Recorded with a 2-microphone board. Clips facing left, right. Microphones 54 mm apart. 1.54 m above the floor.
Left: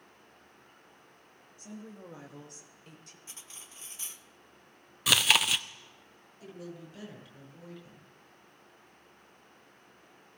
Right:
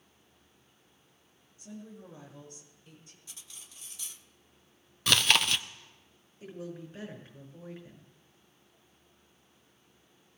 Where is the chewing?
5° left (ahead or behind), 0.5 m.